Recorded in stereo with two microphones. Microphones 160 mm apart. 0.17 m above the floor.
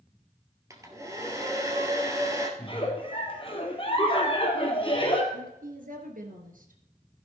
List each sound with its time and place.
0.7 s a hair dryer: 20° right (ahead or behind), 1.9 m
2.6 s a giggle: 30° left (ahead or behind), 2.5 m
5.3 s a woman speaking: 60° right (ahead or behind), 2.5 m